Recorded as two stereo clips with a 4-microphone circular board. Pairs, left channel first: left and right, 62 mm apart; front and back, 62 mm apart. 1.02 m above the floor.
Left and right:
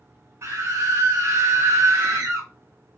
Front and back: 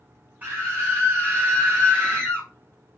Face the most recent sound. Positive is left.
turn(degrees=-125)